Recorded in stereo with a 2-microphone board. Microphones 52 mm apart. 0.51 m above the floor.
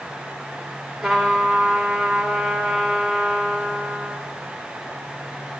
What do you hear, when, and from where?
1.0 s a trumpet: 15° right (ahead or behind), 2 m